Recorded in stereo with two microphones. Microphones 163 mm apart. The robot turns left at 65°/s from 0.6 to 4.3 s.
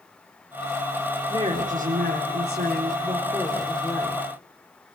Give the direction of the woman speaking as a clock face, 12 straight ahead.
1 o'clock.